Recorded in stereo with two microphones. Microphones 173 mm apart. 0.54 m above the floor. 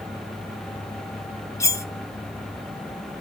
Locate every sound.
1.6 s cutlery clinking: 20° left (ahead or behind), 0.5 m